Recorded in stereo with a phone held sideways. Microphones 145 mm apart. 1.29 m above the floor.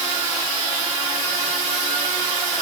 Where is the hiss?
No hiss in this recording.